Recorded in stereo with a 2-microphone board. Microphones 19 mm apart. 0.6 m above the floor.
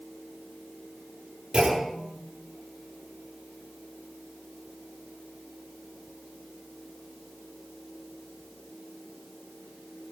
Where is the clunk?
45° right (ahead or behind), 8.5 m.